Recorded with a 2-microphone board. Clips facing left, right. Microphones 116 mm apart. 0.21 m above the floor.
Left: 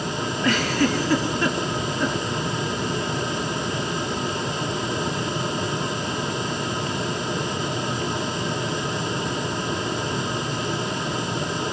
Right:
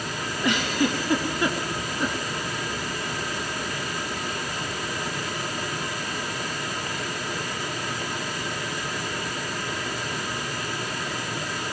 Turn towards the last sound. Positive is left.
turn(degrees=-15)  # may be behind; listen again after turning